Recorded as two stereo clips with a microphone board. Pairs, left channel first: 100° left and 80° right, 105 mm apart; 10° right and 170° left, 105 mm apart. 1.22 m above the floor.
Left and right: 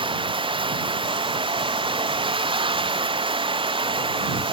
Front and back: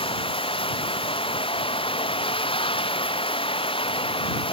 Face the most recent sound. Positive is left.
turn(degrees=-45)